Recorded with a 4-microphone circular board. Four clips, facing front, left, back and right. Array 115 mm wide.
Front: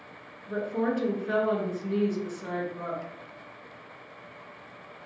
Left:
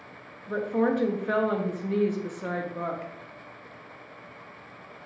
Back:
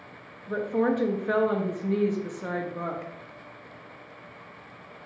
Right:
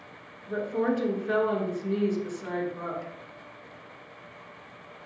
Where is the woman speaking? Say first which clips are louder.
Left 2 dB, back 3 dB; 130° left, 0.6 m.